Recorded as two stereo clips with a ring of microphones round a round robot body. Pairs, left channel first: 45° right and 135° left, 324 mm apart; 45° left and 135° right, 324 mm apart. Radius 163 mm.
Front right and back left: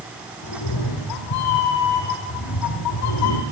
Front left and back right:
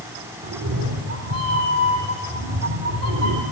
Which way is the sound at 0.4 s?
85° right.